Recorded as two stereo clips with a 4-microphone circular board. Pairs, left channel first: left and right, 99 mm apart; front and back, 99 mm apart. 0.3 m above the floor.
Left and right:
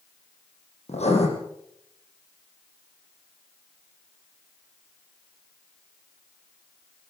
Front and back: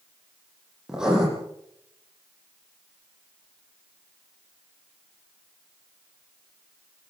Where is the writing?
95° left, 9.5 m.